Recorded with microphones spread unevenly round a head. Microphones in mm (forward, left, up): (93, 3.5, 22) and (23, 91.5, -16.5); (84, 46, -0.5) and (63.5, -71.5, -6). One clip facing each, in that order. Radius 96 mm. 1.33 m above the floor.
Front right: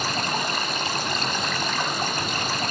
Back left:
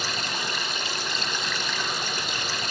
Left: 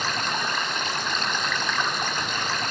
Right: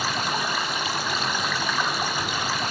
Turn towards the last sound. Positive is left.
turn(degrees=-15)